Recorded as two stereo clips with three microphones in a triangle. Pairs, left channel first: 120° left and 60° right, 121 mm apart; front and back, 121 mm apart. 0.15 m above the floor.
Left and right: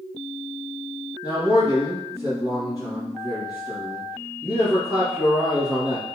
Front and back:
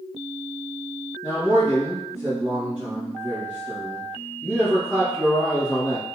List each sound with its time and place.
1.2 s a man speaking: 110° right, 1.7 m